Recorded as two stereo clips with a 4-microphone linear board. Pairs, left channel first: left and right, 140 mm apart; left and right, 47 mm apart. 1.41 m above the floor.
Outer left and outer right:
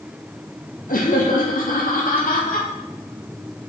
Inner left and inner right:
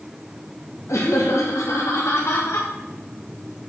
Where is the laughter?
75° left (ahead or behind), 2.5 m; by 2.7 s 85° left, 4.5 m.